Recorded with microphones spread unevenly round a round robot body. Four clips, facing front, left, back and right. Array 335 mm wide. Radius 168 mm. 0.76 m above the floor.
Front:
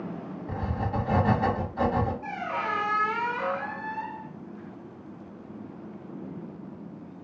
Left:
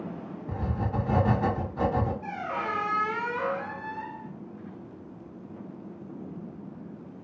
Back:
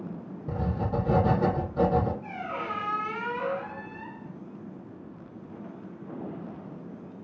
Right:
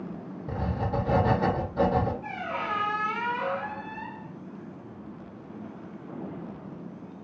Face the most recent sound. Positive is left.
turn(degrees=35)